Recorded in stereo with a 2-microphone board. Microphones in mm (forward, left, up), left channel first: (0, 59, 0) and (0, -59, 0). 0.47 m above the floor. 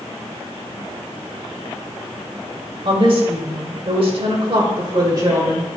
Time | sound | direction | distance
2.9 | a woman speaking | 50° right (ahead or behind) | 2 m